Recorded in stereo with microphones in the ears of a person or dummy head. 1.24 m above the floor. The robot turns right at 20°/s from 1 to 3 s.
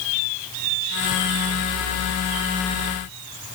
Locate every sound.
Only background noise.